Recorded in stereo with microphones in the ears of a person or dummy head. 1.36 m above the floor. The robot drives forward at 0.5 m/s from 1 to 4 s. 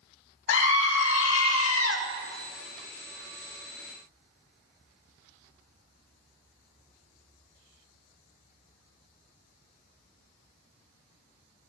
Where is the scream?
70° left (ahead or behind), 1.5 m; by 2.0 s 80° left, 1.4 m.